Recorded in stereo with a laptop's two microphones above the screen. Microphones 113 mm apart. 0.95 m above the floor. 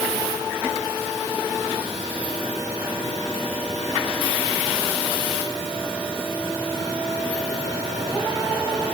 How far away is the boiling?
No boiling in this recording.